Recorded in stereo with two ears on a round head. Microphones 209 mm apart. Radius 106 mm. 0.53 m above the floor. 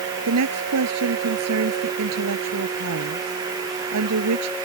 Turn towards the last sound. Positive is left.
turn(degrees=-75)  # may be behind; listen again after turning